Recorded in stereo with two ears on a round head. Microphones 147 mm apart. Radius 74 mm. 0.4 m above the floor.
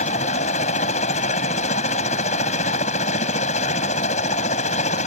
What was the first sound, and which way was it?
A helicopter, 45° left (ahead or behind).